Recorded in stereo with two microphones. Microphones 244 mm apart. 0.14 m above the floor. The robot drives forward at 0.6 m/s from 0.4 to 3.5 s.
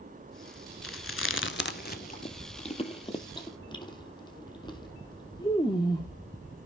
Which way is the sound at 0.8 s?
60° left (ahead or behind).